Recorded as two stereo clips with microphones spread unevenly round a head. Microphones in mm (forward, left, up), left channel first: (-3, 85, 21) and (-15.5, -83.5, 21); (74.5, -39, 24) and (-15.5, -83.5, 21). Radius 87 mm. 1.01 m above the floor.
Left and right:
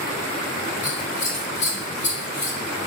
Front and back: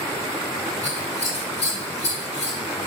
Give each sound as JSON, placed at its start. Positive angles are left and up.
{"t": 0.8, "sound": "scissors", "azimuth_deg": 35, "distance_m": 3.5}